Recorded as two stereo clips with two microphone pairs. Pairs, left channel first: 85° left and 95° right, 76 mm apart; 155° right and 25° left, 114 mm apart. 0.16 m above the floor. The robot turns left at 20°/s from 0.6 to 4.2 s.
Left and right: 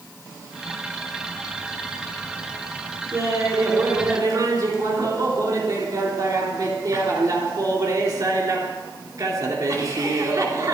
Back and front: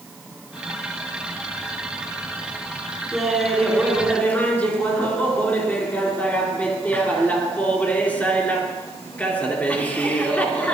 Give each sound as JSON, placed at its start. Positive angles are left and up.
{"t": 3.1, "sound": "laughter", "azimuth_deg": -60, "distance_m": 2.5}